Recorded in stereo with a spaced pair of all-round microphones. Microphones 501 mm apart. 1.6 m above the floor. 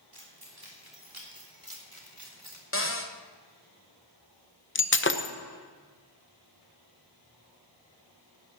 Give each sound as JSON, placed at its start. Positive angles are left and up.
{"t": 0.1, "sound": "keys jangling", "side_deg": -55, "distance_m": 3.5}
{"t": 2.7, "sound": "a cupboard door", "side_deg": 25, "distance_m": 1.0}
{"t": 4.8, "sound": "breaking glass", "side_deg": 25, "distance_m": 0.7}